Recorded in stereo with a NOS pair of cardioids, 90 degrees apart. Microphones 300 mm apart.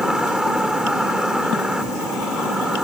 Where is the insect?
Straight ahead.